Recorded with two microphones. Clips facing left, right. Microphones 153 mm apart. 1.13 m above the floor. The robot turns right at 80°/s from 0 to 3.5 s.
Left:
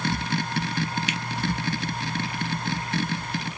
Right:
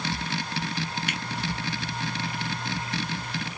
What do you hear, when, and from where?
1.1 s a finger snap: 50° right (ahead or behind), 0.9 m; by 1.2 s 60° right (ahead or behind), 0.9 m